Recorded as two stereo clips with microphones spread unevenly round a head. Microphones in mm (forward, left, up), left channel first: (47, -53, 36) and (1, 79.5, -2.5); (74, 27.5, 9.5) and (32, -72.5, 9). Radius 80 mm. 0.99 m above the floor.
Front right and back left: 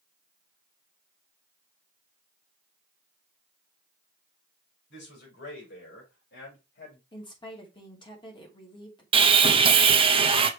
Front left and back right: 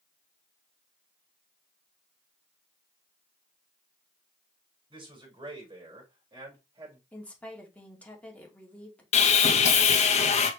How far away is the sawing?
About 1.0 m.